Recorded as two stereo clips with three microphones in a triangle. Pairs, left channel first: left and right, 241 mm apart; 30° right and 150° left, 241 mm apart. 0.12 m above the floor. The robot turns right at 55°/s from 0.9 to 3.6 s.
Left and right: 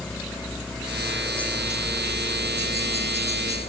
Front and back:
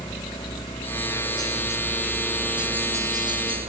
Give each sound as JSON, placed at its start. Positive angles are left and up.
{"t": 0.0, "sound": "a helicopter", "azimuth_deg": 5}